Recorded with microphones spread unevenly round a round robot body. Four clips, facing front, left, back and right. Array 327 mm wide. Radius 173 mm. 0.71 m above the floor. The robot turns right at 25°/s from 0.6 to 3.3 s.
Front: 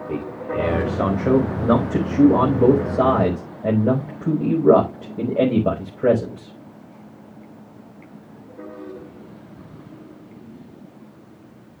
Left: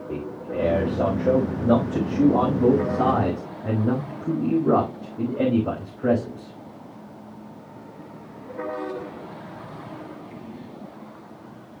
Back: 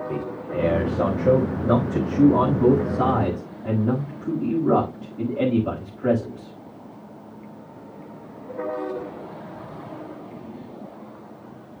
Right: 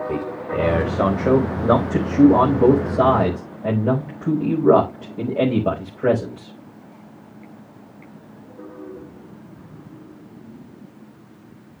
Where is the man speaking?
90° right, 5 m; by 6.5 s 20° right, 5 m.